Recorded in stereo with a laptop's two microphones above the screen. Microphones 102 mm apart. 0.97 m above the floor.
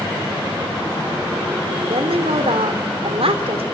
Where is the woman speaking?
80° right, 3.5 m.